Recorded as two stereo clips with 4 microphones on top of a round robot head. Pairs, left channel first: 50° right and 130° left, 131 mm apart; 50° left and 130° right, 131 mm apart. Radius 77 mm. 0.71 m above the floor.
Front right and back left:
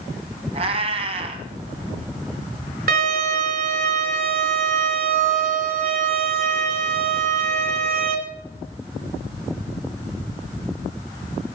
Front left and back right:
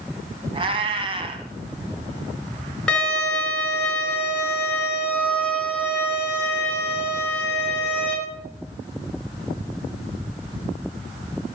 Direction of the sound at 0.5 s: Straight behind.